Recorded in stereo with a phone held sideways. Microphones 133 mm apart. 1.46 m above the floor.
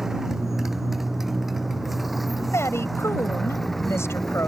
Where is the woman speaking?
20° left (ahead or behind).